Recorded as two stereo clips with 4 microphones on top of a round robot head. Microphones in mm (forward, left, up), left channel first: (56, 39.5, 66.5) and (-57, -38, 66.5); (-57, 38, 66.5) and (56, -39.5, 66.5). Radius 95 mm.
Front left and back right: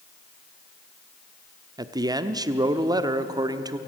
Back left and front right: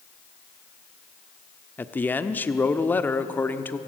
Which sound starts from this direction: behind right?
A man speaking, at 1.8 s.